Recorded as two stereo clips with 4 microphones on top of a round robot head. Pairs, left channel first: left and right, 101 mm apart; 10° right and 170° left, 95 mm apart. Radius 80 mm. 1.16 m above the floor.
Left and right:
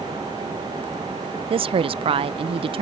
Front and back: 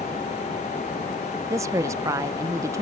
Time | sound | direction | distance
1.5 | a woman speaking | 125° right | ?